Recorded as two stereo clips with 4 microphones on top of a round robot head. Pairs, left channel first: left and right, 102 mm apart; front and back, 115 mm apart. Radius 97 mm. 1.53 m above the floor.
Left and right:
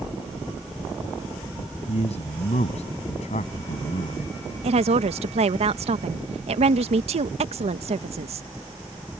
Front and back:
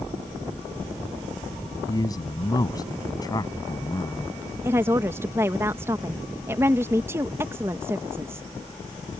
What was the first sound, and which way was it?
A man speaking, 55° left.